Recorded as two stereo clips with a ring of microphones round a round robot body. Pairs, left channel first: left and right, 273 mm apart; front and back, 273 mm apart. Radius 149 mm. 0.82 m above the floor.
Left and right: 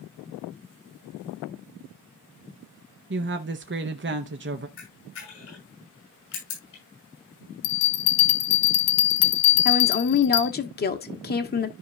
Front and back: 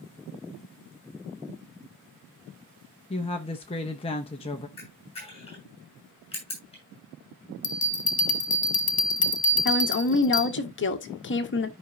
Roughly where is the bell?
Ahead left.